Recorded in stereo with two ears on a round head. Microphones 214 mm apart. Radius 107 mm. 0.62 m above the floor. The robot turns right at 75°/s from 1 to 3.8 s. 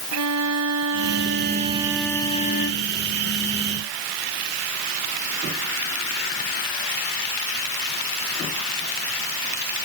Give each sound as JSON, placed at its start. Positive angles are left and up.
{"t": 0.1, "sound": "a violin", "azimuth_deg": -75}